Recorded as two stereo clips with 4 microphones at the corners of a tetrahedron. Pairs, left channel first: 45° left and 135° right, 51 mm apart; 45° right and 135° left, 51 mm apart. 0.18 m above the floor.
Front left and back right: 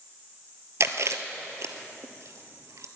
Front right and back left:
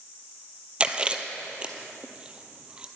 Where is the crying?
I don't hear crying.